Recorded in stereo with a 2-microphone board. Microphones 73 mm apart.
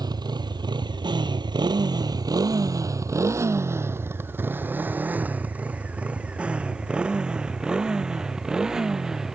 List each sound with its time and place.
0.0 s a motorcycle: 65° right (ahead or behind); by 9.3 s 5° right (ahead or behind)